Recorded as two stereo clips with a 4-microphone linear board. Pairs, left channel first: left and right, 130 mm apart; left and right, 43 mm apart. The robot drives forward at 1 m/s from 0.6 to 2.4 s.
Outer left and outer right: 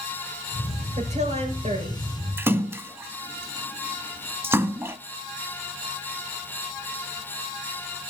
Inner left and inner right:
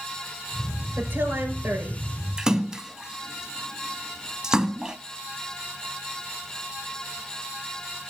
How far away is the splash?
About 0.5 m.